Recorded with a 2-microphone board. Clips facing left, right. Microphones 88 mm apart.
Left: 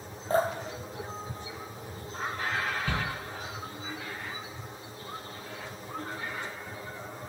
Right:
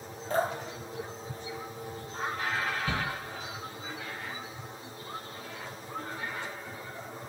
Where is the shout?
15° right (ahead or behind), 1.2 m.